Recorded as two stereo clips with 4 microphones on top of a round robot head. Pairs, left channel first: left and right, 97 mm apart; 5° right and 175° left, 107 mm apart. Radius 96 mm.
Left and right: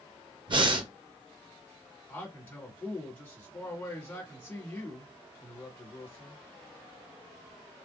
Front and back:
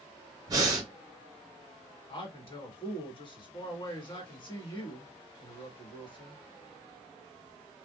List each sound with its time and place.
0.5 s breathing: 125° right, 0.8 m
2.1 s a man speaking: 20° left, 1.6 m